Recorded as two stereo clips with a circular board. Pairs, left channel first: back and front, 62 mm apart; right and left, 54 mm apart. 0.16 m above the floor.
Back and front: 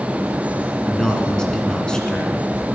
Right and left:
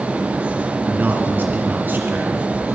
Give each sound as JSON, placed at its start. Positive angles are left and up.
{"t": 0.9, "sound": "a man speaking", "azimuth_deg": 110, "distance_m": 1.9}